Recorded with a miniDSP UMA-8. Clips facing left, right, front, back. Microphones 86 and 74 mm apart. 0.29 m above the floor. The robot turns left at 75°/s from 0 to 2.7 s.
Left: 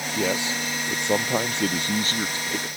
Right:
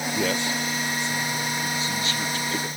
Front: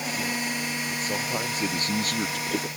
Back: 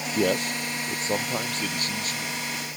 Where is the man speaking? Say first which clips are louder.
Left 1 dB, back 9 dB; 175° right; by 2.7 s 5° right.